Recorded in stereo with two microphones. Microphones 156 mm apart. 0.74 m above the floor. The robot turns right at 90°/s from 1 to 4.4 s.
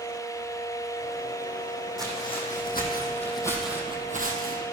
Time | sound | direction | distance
2.0 | footsteps | centre (ahead or behind) | 2.5 m